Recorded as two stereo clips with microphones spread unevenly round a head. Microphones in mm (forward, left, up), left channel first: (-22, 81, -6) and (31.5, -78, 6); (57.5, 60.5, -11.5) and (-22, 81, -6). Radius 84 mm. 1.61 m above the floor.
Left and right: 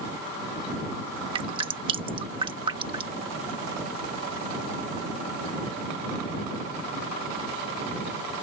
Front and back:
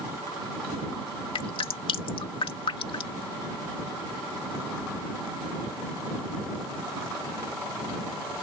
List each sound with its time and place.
1.4 s dripping: 10° right